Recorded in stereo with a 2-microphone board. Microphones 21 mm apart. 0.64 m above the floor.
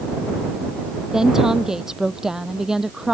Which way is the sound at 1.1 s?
25° right (ahead or behind).